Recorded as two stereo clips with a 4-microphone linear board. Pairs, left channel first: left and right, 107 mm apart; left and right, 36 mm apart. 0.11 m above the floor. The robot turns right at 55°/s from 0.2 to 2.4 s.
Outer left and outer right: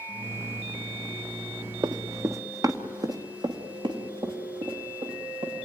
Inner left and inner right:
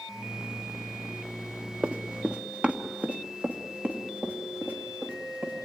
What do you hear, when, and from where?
1.8 s running footsteps: 35° right (ahead or behind), 1.0 m; by 5.5 s 50° right (ahead or behind), 4.5 m